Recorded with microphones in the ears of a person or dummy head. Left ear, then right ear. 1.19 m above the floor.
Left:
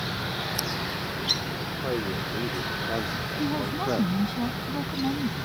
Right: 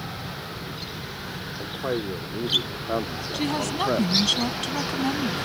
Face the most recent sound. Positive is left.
turn(degrees=-75)  # may be behind; listen again after turning